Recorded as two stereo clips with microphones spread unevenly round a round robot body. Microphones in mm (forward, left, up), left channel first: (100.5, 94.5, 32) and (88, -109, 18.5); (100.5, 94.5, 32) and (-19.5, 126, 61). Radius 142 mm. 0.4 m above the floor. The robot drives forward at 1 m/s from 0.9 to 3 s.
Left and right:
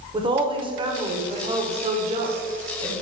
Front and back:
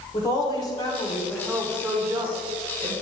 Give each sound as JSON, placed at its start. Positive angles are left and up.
{"t": 0.1, "sound": "a woman speaking", "azimuth_deg": -40, "distance_m": 1.4}